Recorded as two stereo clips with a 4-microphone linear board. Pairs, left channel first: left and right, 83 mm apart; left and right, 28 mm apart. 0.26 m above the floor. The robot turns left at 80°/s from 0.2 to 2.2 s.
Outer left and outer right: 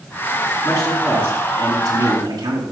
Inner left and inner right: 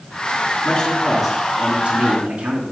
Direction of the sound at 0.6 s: 25° left.